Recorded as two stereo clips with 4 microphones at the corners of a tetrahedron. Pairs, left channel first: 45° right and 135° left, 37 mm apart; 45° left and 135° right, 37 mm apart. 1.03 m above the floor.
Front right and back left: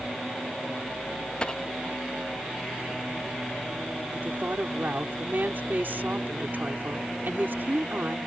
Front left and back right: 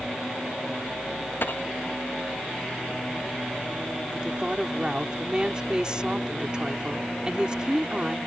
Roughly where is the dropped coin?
Ahead.